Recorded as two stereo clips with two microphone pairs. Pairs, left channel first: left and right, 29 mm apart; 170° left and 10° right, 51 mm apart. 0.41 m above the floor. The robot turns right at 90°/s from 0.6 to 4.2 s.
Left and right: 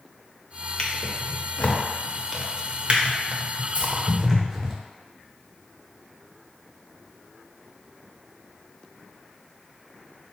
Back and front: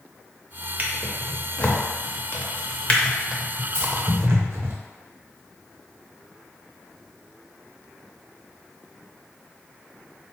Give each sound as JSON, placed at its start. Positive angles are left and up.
{"t": 0.8, "sound": "a drawer", "azimuth_deg": 40, "distance_m": 0.6}
{"t": 3.7, "sound": "keys jangling", "azimuth_deg": -35, "distance_m": 1.2}